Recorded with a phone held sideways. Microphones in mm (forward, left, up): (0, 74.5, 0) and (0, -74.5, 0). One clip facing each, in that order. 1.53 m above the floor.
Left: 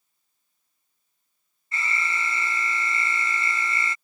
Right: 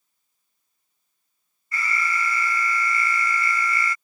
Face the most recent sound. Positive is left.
turn(degrees=25)  # may be behind; listen again after turning